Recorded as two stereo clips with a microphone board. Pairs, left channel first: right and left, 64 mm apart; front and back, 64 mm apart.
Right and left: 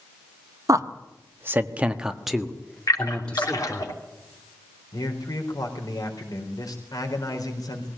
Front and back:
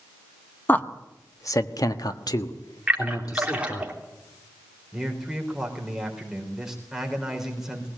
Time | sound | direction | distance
0.7 | a man speaking | 65° left | 1.6 m
2.9 | a splash | 105° right | 3 m
4.9 | a man speaking | 95° right | 4 m